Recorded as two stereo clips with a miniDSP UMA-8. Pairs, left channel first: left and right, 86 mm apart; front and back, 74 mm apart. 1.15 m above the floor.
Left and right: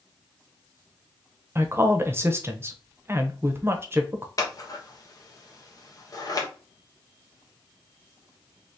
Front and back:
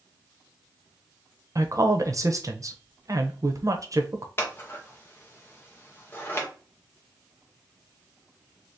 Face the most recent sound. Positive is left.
turn(degrees=55)